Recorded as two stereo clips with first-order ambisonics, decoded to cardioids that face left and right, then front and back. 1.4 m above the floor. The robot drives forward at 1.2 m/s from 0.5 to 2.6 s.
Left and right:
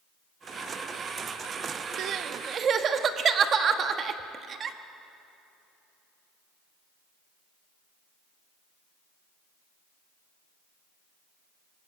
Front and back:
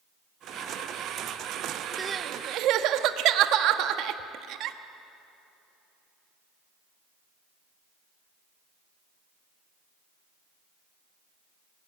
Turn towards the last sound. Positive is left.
turn(degrees=-150)